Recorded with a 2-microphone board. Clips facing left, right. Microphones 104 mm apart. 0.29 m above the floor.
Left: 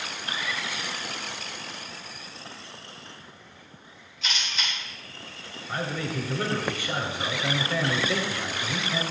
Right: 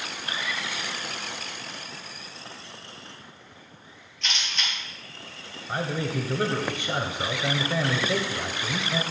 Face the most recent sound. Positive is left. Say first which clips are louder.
# right 2 dB
turn(degrees=-25)  # may be behind; listen again after turning